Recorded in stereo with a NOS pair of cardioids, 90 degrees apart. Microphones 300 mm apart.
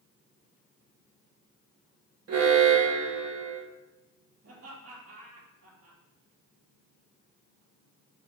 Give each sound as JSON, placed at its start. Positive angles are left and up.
{"t": 2.3, "sound": "an alarm", "azimuth_deg": -50, "distance_m": 1.7}
{"t": 4.4, "sound": "laughter", "azimuth_deg": -55, "distance_m": 3.5}